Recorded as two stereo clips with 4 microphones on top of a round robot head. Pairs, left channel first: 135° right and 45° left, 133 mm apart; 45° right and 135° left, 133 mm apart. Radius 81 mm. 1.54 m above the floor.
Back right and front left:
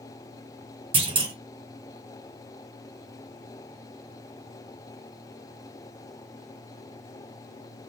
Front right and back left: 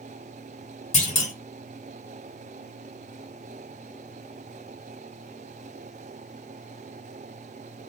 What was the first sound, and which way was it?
A clunk, 5° right.